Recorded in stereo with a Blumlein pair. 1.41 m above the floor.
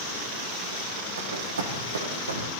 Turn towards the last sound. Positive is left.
turn(degrees=-75)